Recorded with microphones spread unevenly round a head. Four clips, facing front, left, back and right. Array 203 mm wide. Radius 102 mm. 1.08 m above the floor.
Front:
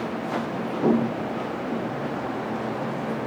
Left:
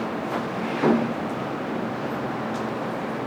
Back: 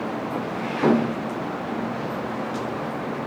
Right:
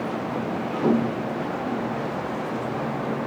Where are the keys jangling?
I don't hear keys jangling.